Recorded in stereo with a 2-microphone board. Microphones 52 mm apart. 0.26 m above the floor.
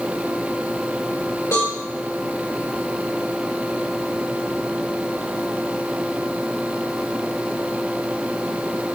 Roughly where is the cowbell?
Left.